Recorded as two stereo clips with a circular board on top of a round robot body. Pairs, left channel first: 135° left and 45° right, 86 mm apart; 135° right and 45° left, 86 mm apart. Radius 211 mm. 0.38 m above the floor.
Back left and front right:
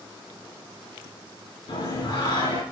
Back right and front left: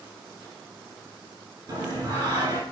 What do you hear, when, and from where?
1.7 s singing: 95° left, 3 m